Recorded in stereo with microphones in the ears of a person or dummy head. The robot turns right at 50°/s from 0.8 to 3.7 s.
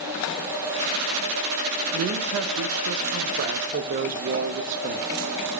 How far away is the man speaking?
About 0.7 m.